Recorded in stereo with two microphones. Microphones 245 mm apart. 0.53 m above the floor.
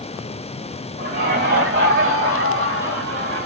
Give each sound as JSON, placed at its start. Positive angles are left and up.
{"t": 1.0, "sound": "laughter", "side_deg": -40, "distance_m": 3.0}